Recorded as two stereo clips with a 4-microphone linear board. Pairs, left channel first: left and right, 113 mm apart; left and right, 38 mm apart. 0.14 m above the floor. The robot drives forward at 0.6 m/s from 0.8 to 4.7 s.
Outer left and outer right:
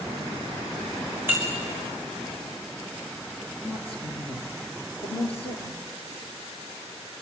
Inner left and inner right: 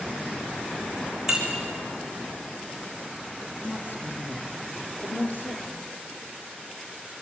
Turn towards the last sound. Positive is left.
turn(degrees=60)  # may be behind; listen again after turning